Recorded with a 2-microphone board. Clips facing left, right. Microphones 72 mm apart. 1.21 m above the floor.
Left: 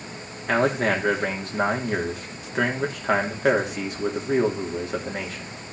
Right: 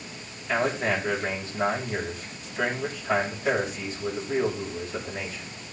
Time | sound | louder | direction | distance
0.5 | a man speaking | left 4 dB | 75° left (ahead or behind) | 3 m